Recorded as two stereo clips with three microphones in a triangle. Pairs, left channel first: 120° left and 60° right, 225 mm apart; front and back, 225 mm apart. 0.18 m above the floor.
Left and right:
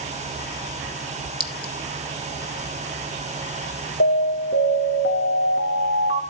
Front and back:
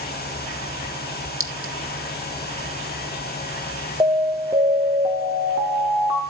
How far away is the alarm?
About 2.5 m.